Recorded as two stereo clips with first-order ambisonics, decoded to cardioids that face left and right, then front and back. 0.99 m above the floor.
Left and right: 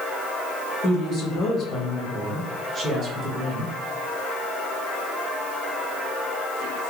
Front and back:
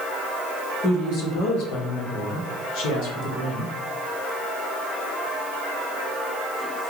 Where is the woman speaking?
50° left, 1.2 m; by 3.7 s 40° right, 1.5 m.